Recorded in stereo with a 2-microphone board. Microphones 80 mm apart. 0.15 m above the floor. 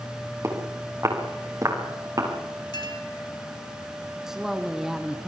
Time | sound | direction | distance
0.4 | footsteps | 40° right (ahead or behind) | 6.5 m
2.7 | a clink | 65° left (ahead or behind) | 3 m
4.3 | a woman speaking | 5° right (ahead or behind) | 1.4 m